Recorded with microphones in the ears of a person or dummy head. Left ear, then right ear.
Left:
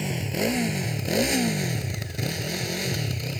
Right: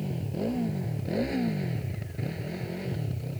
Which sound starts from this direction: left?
A motorcycle, at 0.0 s.